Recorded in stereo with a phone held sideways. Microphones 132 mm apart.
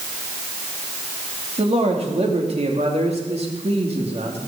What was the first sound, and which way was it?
A man speaking, 50° right (ahead or behind).